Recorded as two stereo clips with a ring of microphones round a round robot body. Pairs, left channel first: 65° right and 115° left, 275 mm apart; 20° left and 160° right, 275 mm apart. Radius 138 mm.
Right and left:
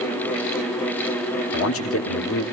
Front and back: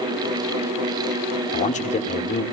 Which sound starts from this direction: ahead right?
A man speaking, at 1.5 s.